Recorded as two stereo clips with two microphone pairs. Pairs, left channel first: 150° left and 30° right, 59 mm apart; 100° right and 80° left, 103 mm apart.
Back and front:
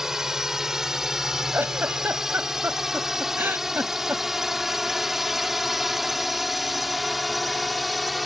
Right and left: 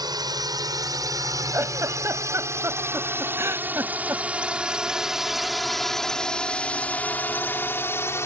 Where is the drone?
45° left; by 8.3 s 120° right.